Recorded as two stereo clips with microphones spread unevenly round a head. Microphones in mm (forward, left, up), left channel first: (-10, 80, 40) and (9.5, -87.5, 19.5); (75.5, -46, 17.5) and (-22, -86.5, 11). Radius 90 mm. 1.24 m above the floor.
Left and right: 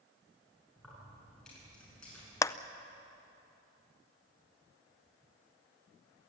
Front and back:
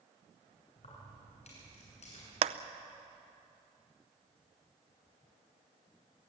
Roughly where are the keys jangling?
Ahead.